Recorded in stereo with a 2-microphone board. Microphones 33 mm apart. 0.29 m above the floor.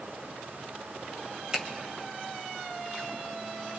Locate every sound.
1.5 s a finger snap: 20° right (ahead or behind), 1.3 m